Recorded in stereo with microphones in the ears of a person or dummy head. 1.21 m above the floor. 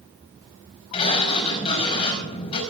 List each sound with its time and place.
0.9 s a sliding door: 35° left (ahead or behind), 5 m